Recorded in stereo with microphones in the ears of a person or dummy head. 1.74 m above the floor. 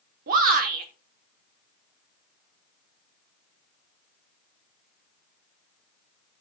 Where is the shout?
45° right (ahead or behind), 1.0 m.